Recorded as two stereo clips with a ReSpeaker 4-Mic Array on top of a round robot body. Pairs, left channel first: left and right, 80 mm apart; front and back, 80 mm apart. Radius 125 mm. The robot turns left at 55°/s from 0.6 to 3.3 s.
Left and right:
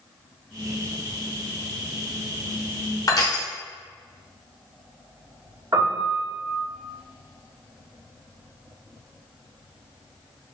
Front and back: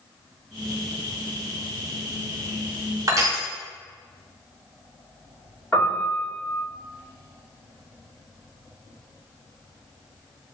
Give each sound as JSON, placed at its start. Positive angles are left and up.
{"t": 3.1, "sound": "crushing", "azimuth_deg": 135, "distance_m": 0.7}
{"t": 5.7, "sound": "a piano", "azimuth_deg": -60, "distance_m": 1.5}